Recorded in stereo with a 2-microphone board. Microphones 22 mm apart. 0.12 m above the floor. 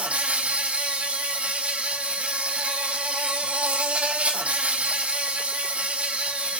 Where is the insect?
75° right (ahead or behind), 1.0 m.